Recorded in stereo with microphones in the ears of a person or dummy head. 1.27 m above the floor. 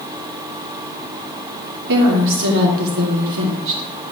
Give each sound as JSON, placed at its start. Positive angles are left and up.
{"t": 1.9, "sound": "a woman speaking", "side_deg": -70, "distance_m": 2.5}